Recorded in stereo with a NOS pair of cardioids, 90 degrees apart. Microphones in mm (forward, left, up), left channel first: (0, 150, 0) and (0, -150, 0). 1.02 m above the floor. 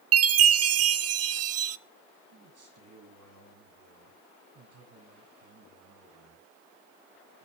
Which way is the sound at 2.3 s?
55° right.